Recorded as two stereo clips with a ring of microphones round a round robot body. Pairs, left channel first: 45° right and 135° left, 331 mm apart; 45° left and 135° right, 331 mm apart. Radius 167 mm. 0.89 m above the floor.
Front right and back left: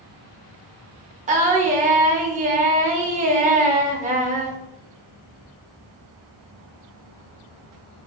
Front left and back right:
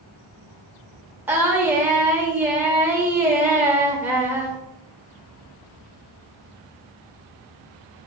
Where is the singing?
150° left, 0.6 m.